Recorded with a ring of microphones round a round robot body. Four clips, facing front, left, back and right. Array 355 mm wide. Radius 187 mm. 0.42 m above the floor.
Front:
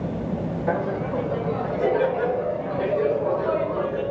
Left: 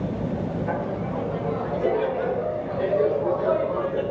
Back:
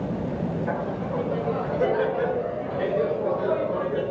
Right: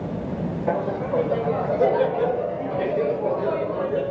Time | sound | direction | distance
0.7 | laughter | 55° right | 1.6 m